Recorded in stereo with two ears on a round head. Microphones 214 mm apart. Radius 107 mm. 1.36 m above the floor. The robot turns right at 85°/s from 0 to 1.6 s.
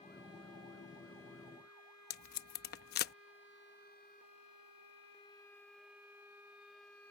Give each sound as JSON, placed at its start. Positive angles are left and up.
{"t": 2.1, "sound": "tape being pulled", "side_deg": 45}